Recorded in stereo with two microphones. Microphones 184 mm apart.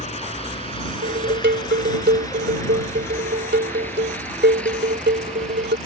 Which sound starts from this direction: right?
Dishes clattering, at 1.0 s.